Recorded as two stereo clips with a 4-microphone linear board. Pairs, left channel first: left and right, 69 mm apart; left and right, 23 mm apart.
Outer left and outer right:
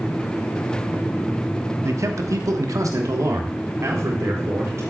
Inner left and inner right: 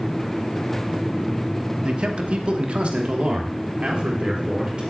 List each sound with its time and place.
1.8 s a man speaking: 45° right (ahead or behind), 1.0 m